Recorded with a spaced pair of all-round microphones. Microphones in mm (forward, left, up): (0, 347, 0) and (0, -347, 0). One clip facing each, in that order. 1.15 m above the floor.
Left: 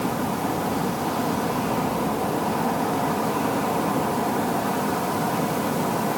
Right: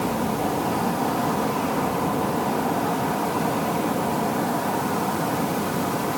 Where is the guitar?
I don't hear a guitar.